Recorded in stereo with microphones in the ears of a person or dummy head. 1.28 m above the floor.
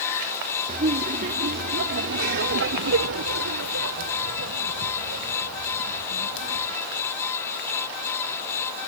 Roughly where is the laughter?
Right.